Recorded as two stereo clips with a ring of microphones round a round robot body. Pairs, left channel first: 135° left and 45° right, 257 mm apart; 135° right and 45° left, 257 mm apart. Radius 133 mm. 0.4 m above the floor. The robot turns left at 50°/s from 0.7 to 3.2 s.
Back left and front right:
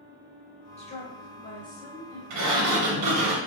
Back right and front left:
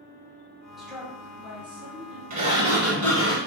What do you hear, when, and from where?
0.8 s a woman speaking: 135° left, 0.9 m; by 2.2 s 60° left, 0.9 m
2.3 s a sliding door: 15° right, 0.8 m; by 3.4 s 60° right, 0.8 m